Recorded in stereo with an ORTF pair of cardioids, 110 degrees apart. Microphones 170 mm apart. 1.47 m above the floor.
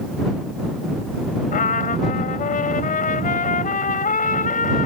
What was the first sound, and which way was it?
A trumpet, 55° left.